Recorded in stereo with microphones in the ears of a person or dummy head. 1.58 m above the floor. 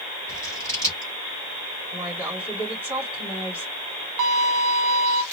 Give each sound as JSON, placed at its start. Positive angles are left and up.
{"t": 0.3, "sound": "scissors", "side_deg": 15, "distance_m": 2.5}
{"t": 1.9, "sound": "a woman speaking", "side_deg": -10, "distance_m": 3.5}
{"t": 4.2, "sound": "a violin", "side_deg": -30, "distance_m": 0.9}